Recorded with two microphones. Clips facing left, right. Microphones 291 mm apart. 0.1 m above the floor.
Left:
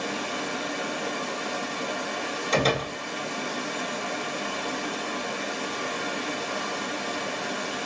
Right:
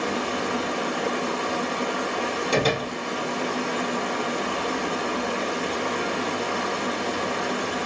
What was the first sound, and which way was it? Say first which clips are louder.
Running water: right 5 dB; 85° right.